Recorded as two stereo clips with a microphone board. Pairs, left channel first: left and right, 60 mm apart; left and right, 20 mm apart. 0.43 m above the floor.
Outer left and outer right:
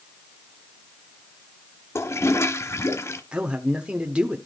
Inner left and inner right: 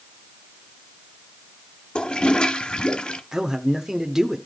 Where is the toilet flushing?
50° left (ahead or behind), 0.8 m.